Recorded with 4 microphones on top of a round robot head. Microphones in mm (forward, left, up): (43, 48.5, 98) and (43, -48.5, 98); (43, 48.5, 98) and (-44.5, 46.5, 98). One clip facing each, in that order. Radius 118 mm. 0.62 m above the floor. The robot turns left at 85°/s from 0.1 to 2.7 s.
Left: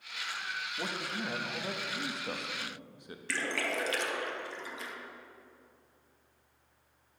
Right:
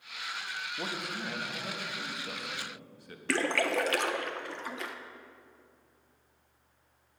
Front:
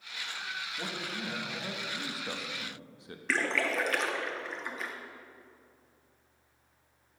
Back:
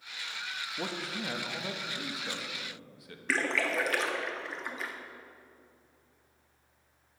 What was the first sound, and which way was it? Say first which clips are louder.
A man speaking: even, back 4 dB; 160° right.